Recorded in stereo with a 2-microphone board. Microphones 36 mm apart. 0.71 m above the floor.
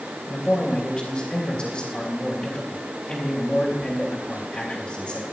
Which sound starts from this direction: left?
A man speaking, at 0.3 s.